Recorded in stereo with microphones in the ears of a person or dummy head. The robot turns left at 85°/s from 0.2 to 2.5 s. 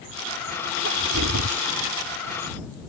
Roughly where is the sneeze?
Ahead right.